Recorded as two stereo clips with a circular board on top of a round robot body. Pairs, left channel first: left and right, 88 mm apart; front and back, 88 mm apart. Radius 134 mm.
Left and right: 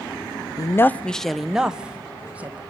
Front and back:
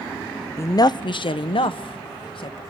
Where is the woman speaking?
55° left, 0.5 m; by 2.6 s 20° right, 1.7 m.